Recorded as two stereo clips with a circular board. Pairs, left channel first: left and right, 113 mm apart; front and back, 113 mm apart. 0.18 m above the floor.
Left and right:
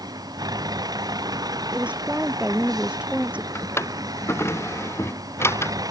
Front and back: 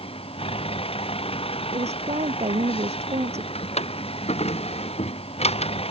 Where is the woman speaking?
170° right.